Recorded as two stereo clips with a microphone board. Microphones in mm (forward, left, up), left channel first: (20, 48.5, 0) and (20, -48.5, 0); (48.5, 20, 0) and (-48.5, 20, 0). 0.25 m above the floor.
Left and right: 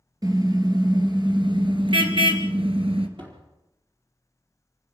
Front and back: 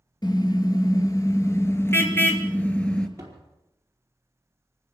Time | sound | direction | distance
0.2 | a car horn | 40° right | 3 m
3.2 | a door slam | 120° right | 4.5 m